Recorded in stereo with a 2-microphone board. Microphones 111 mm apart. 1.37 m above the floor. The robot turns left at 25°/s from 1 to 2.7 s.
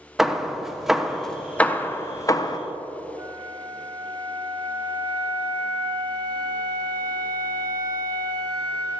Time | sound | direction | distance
0.2 | hammering | 5° right (ahead or behind) | 0.6 m
3.2 | a flute | 35° right (ahead or behind) | 1.2 m